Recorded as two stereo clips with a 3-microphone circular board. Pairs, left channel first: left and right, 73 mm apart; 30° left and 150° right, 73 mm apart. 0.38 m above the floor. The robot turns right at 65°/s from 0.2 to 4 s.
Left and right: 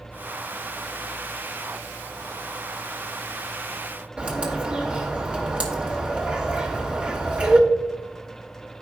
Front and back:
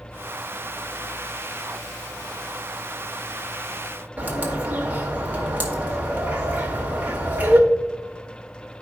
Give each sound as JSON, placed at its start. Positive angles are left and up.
{"t": 4.2, "sound": "a bird", "azimuth_deg": -135, "distance_m": 1.4}